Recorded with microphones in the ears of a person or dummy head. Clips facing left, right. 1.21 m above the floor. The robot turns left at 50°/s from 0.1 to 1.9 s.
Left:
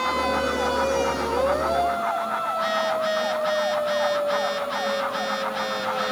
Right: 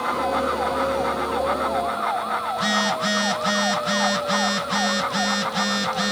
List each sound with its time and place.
2.5 s a phone buzzing: 60° right (ahead or behind)